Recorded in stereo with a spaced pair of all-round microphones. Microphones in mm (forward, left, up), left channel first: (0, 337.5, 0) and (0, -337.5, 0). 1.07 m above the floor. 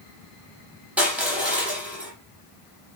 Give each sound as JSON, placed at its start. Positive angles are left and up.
{"t": 1.0, "sound": "crushing", "side_deg": 0, "distance_m": 7.5}